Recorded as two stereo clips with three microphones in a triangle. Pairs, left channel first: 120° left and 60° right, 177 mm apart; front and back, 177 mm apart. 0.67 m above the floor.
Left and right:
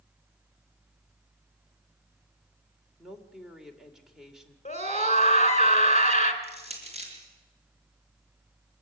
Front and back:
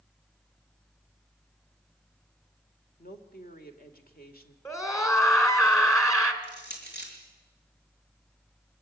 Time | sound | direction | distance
3.0 | a woman speaking | 30° left | 2 m
4.7 | a scream | 70° left | 3 m
6.4 | crushing | 5° right | 5 m